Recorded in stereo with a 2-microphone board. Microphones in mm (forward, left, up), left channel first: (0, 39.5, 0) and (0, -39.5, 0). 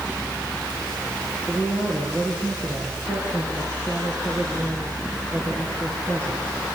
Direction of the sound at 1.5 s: 20° left (ahead or behind).